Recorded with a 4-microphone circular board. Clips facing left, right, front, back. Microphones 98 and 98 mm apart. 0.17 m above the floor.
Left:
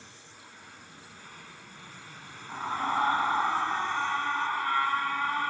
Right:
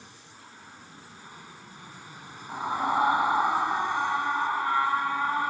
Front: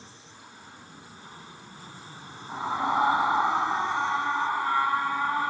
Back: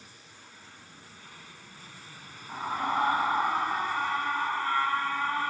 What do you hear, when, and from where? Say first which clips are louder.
0.0 s an aircraft: right 2 dB, front 4 dB; 30° right
2.5 s a scream: right 3 dB, front 3 dB; 45° right